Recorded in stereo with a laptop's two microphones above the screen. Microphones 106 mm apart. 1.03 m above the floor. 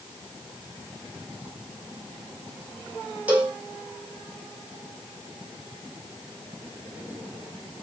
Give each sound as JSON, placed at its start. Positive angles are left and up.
{"t": 3.3, "sound": "a cowbell", "side_deg": -15, "distance_m": 1.2}